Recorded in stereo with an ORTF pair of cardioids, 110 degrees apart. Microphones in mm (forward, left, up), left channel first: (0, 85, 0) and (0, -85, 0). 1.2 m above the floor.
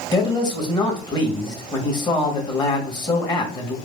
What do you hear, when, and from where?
0.1 s a man speaking: 25° left, 1.5 m